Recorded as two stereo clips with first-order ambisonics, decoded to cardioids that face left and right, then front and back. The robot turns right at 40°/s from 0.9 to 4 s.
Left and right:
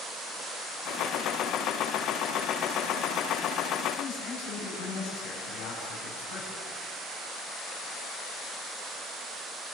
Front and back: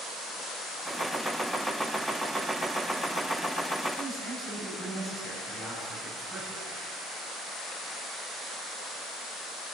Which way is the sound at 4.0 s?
85° left.